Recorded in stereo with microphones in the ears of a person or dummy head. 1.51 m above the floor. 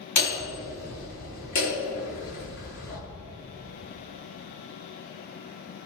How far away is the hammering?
About 3.5 m.